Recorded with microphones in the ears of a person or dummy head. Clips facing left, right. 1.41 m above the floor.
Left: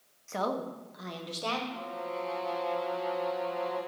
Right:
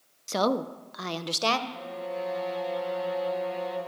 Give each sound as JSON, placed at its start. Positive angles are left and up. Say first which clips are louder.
{"t": 0.3, "sound": "a woman speaking", "louder": "right 6 dB", "side_deg": -50, "distance_m": 0.7}
{"t": 1.7, "sound": "a violin", "louder": "right 2 dB", "side_deg": -15, "distance_m": 4.5}